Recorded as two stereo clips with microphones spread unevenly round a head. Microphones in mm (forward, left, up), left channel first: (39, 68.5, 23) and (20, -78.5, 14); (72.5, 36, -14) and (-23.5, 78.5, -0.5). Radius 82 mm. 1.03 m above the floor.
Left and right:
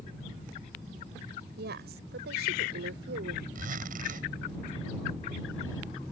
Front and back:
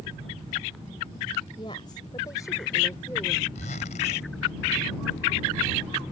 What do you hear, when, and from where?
1.6 s a woman speaking: 85° right; by 3.5 s 110° right
3.5 s a zipper: 65° right